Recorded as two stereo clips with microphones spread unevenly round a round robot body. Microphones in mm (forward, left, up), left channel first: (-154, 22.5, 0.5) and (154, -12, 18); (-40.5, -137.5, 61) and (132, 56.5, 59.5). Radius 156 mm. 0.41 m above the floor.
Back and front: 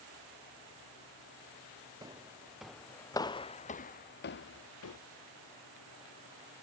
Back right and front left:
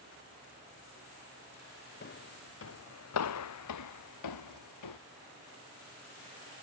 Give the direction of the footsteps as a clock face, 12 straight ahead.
3 o'clock.